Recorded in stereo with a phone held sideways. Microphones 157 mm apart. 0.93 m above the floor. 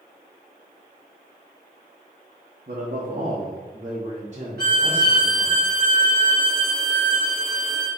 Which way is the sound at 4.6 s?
75° right (ahead or behind).